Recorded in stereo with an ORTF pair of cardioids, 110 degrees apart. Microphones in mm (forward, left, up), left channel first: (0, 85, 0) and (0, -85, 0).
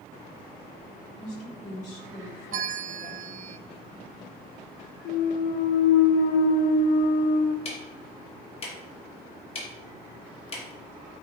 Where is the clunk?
65° left, 0.7 m.